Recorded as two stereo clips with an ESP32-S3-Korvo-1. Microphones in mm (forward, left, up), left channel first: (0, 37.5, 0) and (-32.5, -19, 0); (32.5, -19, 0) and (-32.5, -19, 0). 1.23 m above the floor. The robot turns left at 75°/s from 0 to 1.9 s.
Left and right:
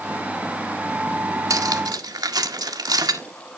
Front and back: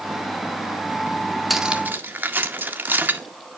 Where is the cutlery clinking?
90° right, 1.5 m; by 3.2 s 120° right, 1.5 m.